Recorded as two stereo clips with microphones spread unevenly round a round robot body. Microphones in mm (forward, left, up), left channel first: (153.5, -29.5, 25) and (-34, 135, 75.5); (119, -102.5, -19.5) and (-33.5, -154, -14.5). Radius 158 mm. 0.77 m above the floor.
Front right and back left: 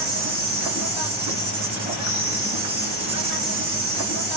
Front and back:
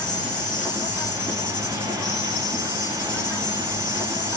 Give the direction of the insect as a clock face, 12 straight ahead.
8 o'clock.